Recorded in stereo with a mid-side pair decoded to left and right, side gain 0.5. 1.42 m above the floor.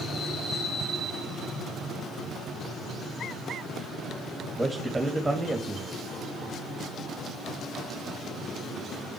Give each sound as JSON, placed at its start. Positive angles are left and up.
{"t": 4.6, "sound": "a man speaking", "azimuth_deg": -10, "distance_m": 2.5}